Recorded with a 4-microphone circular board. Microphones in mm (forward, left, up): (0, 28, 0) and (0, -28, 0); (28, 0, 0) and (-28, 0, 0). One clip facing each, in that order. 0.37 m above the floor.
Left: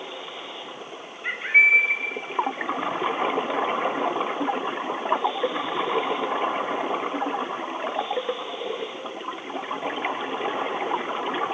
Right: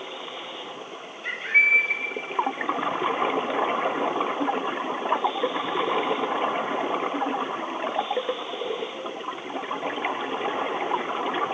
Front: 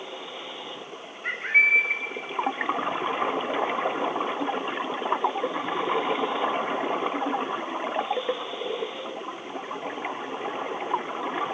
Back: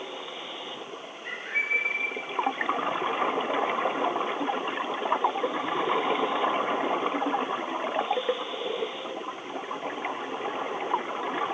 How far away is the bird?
About 0.7 m.